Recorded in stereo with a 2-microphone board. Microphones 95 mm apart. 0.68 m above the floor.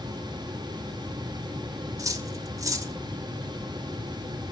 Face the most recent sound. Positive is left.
turn(degrees=-35)  # may be behind; listen again after turning